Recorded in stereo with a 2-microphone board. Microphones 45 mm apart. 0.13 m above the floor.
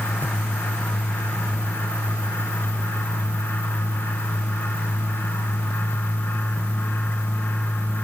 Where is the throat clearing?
No throat clearing in this recording.